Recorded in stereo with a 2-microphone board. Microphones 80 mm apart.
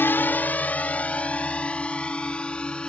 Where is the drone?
25° left (ahead or behind); by 2.9 s 10° left (ahead or behind).